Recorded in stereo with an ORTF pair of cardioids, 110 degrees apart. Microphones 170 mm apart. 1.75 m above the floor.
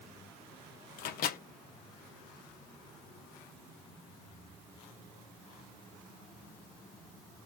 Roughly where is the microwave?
Ahead left.